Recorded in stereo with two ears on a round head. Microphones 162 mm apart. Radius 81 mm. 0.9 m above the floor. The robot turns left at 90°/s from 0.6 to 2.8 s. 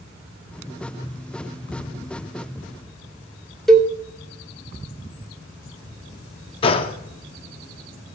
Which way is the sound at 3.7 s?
Centre (ahead or behind).